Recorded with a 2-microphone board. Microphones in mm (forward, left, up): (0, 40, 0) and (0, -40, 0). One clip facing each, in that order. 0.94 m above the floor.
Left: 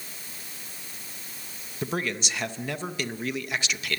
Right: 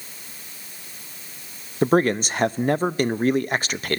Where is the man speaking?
45° right (ahead or behind), 0.5 m.